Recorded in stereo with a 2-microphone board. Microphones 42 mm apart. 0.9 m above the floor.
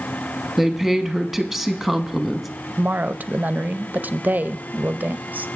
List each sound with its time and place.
0.6 s a woman speaking: centre (ahead or behind), 1.1 m
2.8 s a woman speaking: 40° right (ahead or behind), 0.5 m